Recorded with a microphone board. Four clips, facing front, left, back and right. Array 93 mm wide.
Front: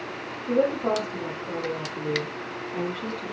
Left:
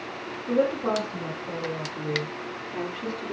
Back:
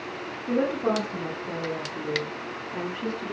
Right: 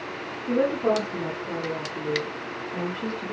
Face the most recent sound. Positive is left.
turn(degrees=-165)